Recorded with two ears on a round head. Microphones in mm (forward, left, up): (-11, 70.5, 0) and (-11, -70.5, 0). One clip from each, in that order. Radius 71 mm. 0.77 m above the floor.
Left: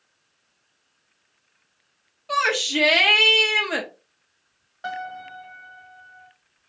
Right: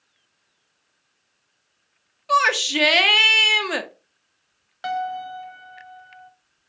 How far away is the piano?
About 1.0 m.